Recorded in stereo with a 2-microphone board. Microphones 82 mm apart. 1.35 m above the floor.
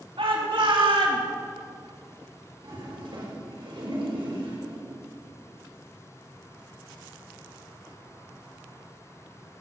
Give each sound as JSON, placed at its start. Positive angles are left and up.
{"t": 0.2, "sound": "a shout", "side_deg": -80, "distance_m": 3.5}
{"t": 2.6, "sound": "a toilet flushing", "side_deg": -80, "distance_m": 5.5}